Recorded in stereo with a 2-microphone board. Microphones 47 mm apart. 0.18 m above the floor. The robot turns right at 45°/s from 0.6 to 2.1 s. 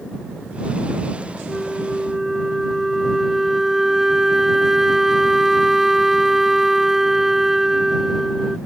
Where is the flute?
15° left (ahead or behind); by 8.6 s 10° right (ahead or behind).